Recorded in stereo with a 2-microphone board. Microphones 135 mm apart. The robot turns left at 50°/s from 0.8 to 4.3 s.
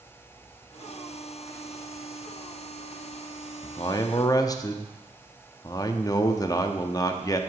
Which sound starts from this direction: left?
A man speaking, at 3.6 s.